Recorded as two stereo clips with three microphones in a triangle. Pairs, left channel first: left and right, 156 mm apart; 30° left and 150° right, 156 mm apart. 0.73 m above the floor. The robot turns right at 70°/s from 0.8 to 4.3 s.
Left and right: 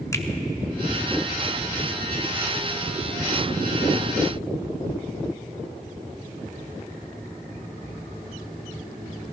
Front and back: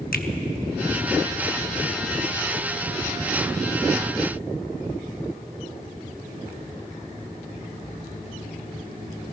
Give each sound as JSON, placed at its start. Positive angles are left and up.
{"t": 0.1, "sound": "a finger snap", "azimuth_deg": 20, "distance_m": 0.9}